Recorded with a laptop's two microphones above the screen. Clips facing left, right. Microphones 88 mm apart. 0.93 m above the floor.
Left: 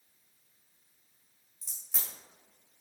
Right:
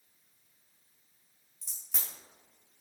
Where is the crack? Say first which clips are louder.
Even; 5° right (ahead or behind), 1.6 m.